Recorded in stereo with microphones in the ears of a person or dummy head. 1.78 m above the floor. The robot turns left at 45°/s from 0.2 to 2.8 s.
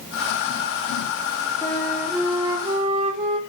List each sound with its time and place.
1.6 s a flute: 15° left, 3.5 m; by 3.4 s 35° right, 3.5 m